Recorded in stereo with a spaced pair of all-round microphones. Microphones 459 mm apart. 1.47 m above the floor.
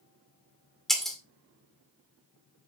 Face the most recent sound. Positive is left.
turn(degrees=0)  # may be behind; listen again after turning